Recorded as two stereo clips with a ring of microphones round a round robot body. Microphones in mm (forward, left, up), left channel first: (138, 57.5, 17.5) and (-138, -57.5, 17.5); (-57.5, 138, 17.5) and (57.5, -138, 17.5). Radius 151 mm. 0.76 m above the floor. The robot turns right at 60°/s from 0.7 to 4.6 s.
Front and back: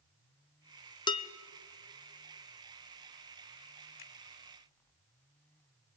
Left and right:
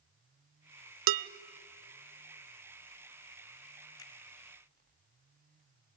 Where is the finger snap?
35° left, 1.8 m; by 4.1 s 40° left, 1.8 m.